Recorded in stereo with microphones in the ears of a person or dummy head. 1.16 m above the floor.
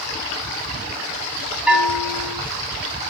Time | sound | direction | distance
1.7 | a bell | 10° right (ahead or behind) | 3 m